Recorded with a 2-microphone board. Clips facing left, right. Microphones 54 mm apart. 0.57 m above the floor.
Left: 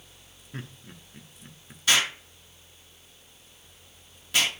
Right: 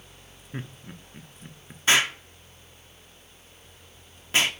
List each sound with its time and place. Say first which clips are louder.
0.5 s laughter: right 3 dB; 15° right (ahead or behind), 0.8 m
1.9 s an explosion: right 3 dB; 30° right (ahead or behind), 1.4 m